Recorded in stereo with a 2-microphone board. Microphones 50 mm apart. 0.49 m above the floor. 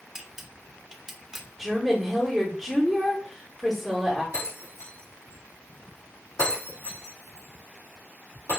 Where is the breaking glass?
80° left, 3.5 m.